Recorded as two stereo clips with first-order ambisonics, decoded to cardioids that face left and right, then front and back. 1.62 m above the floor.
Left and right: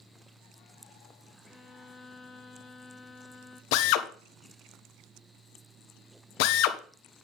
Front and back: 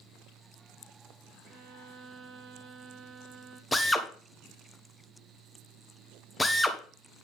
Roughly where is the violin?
Behind left.